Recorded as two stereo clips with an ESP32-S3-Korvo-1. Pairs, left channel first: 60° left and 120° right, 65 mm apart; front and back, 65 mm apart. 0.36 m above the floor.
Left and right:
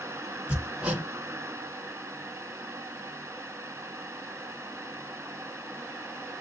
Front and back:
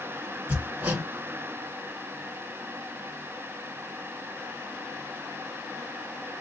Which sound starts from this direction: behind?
Hammering, at 0.5 s.